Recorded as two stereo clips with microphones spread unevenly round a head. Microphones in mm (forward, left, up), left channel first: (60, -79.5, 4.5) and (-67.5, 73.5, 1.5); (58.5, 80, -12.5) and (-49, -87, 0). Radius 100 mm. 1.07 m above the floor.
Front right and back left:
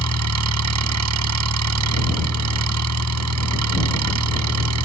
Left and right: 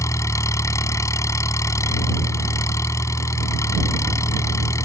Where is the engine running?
135° left.